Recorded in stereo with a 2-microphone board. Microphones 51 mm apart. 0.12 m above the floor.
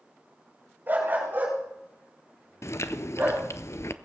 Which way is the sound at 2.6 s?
65° left (ahead or behind).